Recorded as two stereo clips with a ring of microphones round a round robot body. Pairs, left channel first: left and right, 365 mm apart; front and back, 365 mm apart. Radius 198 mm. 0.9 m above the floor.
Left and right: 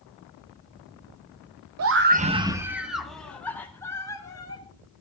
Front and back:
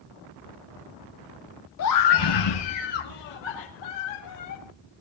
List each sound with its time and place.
1.8 s a scream: 50° right, 1.0 m; by 4.6 s 10° left, 4.5 m